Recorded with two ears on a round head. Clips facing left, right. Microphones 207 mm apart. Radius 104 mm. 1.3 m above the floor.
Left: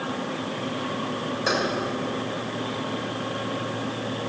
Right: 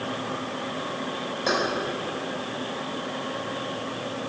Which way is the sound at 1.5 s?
10° left (ahead or behind).